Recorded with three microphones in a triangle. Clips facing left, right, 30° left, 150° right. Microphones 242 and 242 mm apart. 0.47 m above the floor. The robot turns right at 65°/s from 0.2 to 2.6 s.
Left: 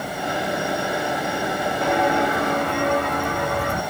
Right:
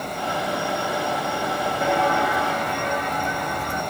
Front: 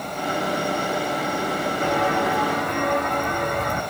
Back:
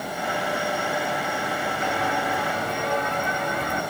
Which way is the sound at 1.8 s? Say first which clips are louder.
Left 2 dB, front 6 dB; 10° right.